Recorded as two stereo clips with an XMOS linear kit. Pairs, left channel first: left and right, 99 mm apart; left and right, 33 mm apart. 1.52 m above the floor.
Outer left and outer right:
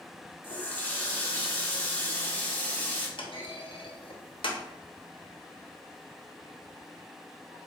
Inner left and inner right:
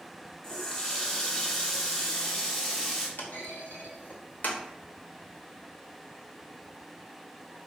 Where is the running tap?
20° left (ahead or behind), 0.8 m.